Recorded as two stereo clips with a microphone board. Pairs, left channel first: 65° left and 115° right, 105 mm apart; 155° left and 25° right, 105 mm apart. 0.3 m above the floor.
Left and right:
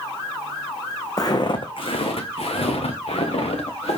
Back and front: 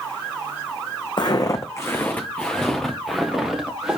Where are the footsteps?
115° left, 0.8 m; by 4.0 s 60° left, 1.8 m.